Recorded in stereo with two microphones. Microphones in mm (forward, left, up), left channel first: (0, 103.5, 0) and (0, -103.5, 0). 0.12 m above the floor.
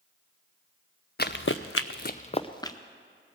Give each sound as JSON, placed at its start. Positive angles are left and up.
{"t": 1.2, "sound": "running footsteps", "side_deg": 50, "distance_m": 0.7}